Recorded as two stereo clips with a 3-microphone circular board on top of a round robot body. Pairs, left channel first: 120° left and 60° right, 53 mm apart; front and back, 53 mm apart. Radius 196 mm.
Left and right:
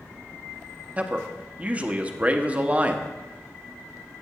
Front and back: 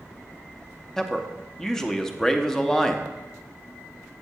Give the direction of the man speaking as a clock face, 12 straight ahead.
2 o'clock.